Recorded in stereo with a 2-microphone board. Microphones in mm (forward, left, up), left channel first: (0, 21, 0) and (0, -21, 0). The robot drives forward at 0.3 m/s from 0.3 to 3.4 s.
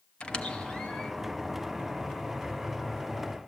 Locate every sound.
0.2 s a squeak: 25° left (ahead or behind), 0.8 m; by 1.1 s 20° left (ahead or behind), 1.0 m